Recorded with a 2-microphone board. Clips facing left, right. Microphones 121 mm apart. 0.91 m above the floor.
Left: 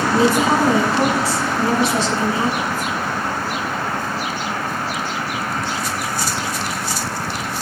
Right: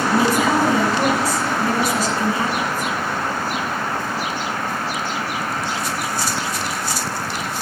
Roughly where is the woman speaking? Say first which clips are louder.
Left 2 dB; left.